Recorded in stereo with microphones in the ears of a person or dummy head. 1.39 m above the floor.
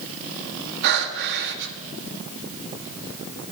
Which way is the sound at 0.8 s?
65° right (ahead or behind).